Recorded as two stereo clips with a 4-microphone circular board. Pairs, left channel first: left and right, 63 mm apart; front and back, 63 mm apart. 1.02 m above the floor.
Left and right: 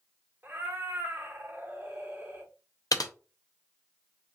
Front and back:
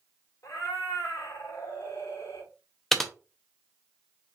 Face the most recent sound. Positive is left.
turn(degrees=85)